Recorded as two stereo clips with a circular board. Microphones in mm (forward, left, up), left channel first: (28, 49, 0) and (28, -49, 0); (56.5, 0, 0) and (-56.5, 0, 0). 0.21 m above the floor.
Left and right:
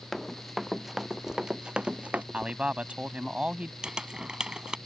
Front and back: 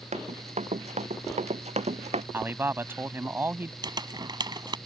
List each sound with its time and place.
0.1 s running footsteps: straight behind; by 2.2 s 165° right
2.3 s a man speaking: 150° right
3.8 s crumpling: 165° right